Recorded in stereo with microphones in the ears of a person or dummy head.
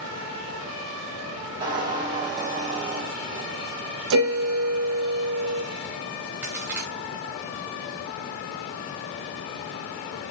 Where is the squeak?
25° right (ahead or behind), 4 m.